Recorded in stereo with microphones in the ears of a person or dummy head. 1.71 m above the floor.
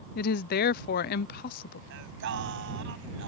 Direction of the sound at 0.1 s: 55° left (ahead or behind).